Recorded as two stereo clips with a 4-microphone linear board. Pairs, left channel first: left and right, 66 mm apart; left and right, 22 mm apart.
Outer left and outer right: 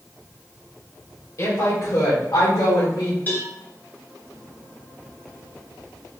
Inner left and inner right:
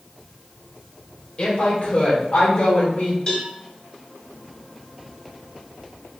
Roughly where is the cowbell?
Left.